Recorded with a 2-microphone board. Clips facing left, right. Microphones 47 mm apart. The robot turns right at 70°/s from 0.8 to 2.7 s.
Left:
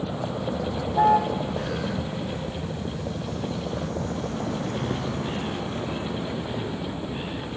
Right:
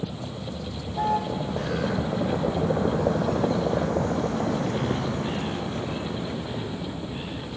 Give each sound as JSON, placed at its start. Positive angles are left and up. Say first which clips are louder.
{"t": 0.0, "sound": "a vehicle", "louder": "left 5 dB", "side_deg": 35}